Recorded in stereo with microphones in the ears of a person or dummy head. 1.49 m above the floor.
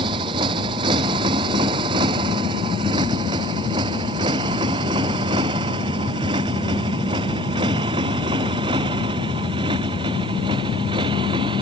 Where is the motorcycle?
20° right (ahead or behind).